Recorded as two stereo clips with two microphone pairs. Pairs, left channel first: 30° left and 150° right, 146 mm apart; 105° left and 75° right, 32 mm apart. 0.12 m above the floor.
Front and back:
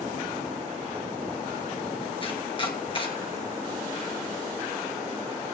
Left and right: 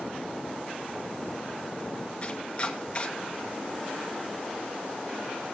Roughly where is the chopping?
Ahead left.